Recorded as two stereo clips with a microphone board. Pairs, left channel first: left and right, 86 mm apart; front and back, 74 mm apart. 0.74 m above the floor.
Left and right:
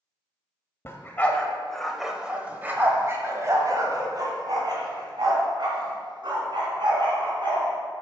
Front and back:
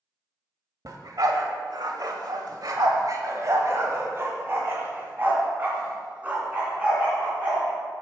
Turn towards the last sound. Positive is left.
turn(degrees=-110)